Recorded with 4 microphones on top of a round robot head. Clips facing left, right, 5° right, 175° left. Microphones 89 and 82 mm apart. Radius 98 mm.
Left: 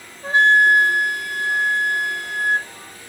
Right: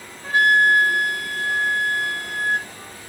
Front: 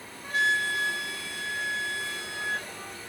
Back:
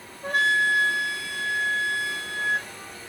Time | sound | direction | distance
0.2 | a flute | 150° left | 0.7 m